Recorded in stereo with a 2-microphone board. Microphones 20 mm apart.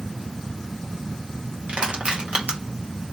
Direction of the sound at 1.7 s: 65° right (ahead or behind).